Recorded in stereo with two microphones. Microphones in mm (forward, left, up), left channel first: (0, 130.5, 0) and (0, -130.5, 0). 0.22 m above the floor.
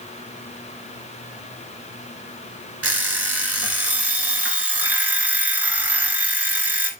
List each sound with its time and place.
2.8 s an alarm clock: 60° right (ahead or behind), 1.4 m